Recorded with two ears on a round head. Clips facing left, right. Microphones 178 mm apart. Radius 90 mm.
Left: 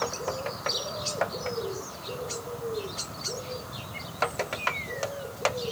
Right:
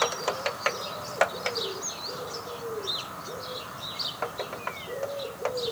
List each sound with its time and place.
Only background noise.